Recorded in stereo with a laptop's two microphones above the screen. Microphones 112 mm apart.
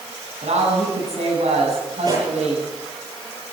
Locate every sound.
0.4 s a woman speaking: 80° right, 9.5 m
2.0 s a pop: 40° right (ahead or behind), 8 m